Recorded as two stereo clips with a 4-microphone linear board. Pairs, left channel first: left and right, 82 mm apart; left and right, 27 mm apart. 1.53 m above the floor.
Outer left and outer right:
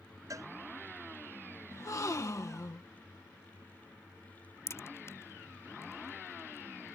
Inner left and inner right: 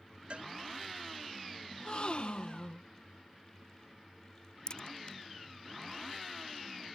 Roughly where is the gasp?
Left.